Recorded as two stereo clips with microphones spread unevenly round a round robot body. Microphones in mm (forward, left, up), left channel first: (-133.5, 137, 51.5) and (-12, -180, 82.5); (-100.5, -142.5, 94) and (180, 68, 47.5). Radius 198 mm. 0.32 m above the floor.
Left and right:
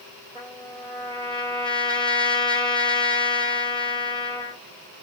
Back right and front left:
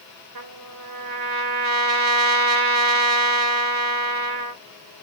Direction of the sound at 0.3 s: 10° left.